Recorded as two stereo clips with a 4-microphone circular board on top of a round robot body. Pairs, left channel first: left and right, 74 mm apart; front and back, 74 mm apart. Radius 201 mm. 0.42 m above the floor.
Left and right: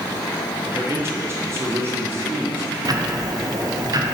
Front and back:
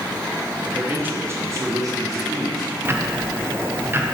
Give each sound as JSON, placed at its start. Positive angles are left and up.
{"t": 0.8, "sound": "a man speaking", "azimuth_deg": -115, "distance_m": 1.4}
{"t": 2.9, "sound": "ticking", "azimuth_deg": -120, "distance_m": 1.0}